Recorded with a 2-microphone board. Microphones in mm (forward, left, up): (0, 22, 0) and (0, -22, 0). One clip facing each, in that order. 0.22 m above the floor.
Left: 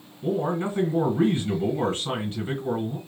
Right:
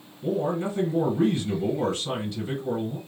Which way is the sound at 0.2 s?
35° left (ahead or behind).